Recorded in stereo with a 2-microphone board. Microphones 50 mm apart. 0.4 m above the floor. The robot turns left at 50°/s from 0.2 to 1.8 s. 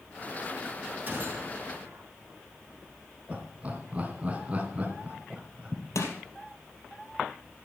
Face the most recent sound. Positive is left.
turn(degrees=80)